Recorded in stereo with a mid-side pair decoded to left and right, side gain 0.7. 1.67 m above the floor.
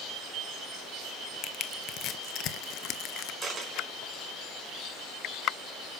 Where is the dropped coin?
20° right, 4.5 m.